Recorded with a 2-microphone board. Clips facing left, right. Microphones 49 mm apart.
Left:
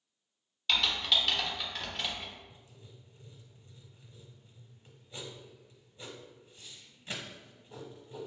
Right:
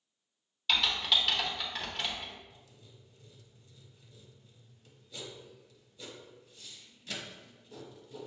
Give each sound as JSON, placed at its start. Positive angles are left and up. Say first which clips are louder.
{"t": 0.7, "sound": "typing on a keyboard", "louder": "even", "side_deg": 0, "distance_m": 0.9}
{"t": 2.5, "sound": "writing", "louder": "left 1 dB", "side_deg": 35, "distance_m": 0.8}